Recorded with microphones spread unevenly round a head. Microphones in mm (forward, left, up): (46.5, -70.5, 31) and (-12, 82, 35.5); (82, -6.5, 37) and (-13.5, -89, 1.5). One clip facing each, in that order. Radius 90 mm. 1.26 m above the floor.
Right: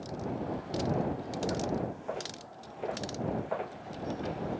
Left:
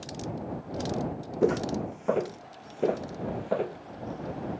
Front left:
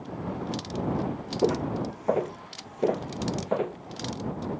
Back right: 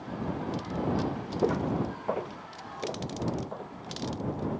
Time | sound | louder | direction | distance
1.4 | footsteps | left 8 dB, front left 2 dB | 105° left | ?